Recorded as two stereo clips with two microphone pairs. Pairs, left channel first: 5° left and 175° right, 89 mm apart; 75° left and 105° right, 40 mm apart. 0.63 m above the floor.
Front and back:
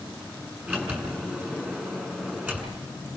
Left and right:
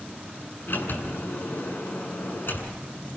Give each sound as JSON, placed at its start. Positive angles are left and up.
{"t": 0.7, "sound": "a sliding door", "azimuth_deg": 115, "distance_m": 6.5}